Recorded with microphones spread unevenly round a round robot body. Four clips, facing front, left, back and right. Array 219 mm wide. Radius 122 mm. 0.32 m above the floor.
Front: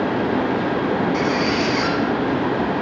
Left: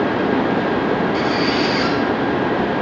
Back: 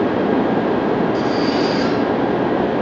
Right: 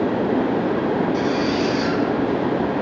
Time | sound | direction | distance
1.1 | a squeak | 45° left | 1.5 m